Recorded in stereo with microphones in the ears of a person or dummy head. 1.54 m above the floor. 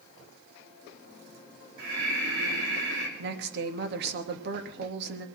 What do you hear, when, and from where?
1.8 s breathing: 65° right (ahead or behind), 3 m
3.2 s a woman speaking: 55° right (ahead or behind), 2 m